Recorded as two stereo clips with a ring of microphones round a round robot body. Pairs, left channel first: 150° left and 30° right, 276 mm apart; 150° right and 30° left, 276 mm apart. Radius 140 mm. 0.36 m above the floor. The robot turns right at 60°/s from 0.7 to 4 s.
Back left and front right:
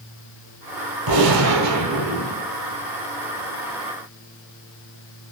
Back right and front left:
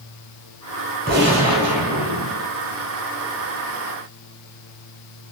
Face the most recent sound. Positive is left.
turn(degrees=145)